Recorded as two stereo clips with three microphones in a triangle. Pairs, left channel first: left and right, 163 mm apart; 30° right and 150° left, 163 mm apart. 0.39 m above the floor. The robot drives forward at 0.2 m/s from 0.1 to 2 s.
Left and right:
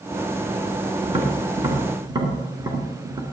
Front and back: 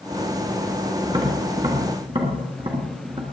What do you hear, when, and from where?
1.0 s tapping: 150° right, 2 m